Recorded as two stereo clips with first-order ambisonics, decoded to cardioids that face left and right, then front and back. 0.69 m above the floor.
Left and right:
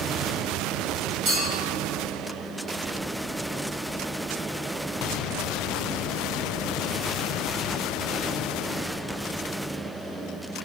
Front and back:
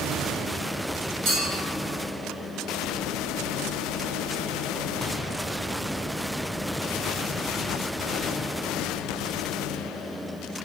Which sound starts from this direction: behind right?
A clink, at 1.2 s.